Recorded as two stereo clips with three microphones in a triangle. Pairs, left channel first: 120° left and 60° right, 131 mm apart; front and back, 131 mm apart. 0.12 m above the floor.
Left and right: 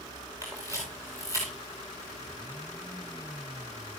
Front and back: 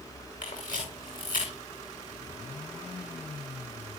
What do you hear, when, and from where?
0.4 s a camera shutter: 5° left, 6.5 m